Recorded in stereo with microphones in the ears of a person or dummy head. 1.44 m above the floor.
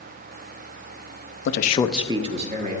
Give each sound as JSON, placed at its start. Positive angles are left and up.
{"t": 1.4, "sound": "a man speaking", "side_deg": 65, "distance_m": 0.7}